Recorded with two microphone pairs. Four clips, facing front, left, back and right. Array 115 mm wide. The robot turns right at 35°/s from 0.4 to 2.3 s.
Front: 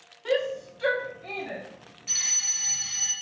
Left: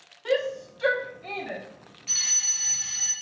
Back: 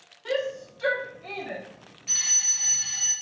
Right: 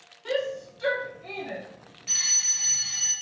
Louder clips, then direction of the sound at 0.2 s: Left 2 dB, front 2 dB; 45° left.